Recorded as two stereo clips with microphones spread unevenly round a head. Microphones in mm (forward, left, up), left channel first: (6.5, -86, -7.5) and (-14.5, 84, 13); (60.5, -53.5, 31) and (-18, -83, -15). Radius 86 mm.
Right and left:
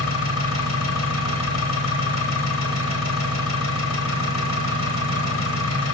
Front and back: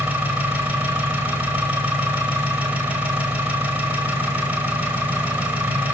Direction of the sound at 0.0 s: 85° right.